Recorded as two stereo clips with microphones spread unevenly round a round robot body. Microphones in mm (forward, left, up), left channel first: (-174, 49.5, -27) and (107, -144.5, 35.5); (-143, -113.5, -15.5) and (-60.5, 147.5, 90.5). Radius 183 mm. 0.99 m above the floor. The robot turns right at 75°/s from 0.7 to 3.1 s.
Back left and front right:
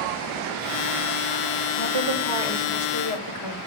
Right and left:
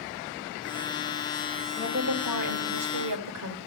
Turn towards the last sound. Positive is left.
turn(degrees=95)